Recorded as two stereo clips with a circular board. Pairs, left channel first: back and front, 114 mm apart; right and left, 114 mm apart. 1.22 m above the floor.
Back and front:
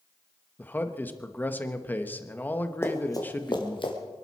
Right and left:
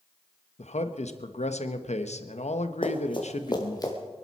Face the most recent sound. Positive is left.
turn(degrees=-145)